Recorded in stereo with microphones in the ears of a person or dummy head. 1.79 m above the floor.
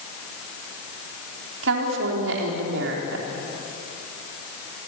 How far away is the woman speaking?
About 3.5 m.